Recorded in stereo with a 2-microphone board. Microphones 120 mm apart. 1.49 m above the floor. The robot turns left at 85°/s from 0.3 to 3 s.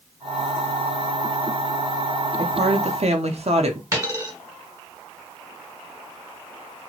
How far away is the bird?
I don't hear a bird.